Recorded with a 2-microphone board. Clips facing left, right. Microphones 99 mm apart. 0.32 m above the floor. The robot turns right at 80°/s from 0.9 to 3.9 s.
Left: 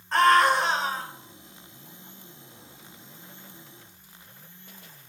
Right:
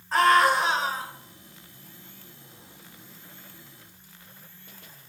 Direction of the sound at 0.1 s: 5° right (ahead or behind).